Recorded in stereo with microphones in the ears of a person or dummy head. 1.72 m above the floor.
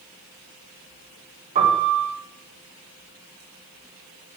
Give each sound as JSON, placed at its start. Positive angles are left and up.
{"t": 1.6, "sound": "a piano", "side_deg": -40, "distance_m": 9.0}